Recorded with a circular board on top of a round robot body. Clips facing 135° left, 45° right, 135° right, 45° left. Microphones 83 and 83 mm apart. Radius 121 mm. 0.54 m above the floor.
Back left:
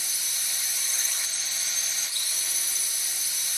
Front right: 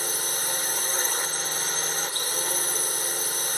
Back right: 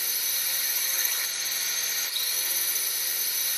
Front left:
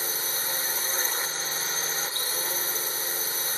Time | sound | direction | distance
0.0 | a drone | 10° right | ?